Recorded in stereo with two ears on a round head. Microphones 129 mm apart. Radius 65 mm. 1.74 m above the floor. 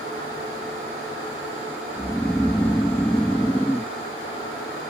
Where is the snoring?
5° left (ahead or behind).